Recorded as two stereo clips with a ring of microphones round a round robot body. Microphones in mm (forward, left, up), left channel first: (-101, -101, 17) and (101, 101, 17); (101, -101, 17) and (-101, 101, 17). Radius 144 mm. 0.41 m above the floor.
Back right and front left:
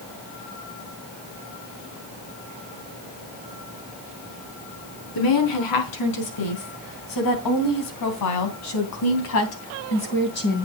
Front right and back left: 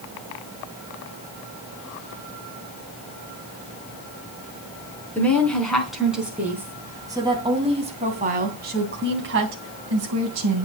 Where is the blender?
No blender in this recording.